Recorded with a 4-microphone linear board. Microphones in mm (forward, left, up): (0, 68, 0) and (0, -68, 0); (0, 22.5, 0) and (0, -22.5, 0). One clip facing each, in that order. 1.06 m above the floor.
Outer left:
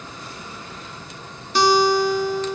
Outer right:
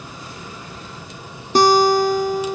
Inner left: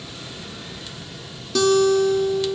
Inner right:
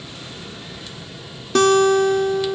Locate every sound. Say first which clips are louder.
1.6 s a guitar: outer right 3 dB, inner right 2 dB; 45° right (ahead or behind), 1.1 m